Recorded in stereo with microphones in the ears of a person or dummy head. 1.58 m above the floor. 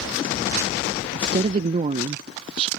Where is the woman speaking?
35° right (ahead or behind).